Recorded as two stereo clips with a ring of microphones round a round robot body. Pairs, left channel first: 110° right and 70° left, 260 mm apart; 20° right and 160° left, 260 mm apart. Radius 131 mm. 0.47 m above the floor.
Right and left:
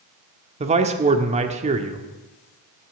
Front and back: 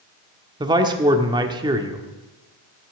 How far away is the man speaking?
About 1.2 m.